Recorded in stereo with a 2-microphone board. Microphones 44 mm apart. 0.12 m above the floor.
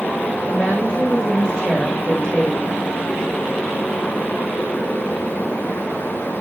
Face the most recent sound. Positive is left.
turn(degrees=20)  # may be behind; listen again after turning